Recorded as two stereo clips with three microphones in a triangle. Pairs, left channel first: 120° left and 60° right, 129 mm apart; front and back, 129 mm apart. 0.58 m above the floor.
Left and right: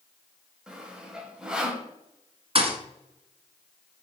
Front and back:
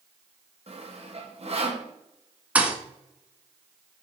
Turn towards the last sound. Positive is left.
turn(degrees=-100)